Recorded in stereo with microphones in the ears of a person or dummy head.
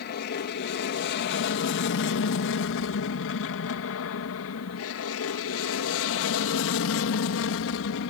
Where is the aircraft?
50° left (ahead or behind); by 8.1 s 65° left (ahead or behind).